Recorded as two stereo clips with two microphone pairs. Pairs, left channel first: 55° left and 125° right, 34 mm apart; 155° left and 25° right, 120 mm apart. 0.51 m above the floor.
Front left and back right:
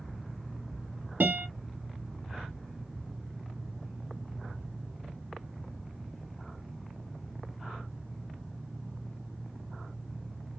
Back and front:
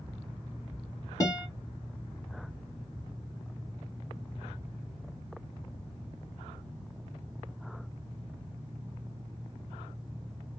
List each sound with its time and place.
1.2 s a guitar: 145° right, 0.9 m